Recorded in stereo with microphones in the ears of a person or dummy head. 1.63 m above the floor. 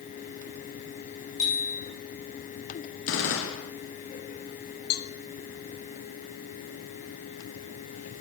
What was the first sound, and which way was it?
A bicycle bell, 20° left (ahead or behind).